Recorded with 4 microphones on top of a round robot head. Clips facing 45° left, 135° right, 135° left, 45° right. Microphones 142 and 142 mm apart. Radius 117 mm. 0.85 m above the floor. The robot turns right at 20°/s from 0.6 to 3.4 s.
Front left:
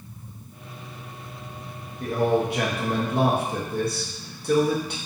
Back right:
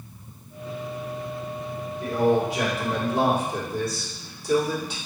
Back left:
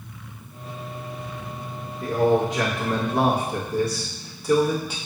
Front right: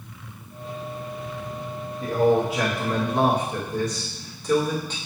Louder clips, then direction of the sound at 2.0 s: Back right 1 dB, even; 30° left.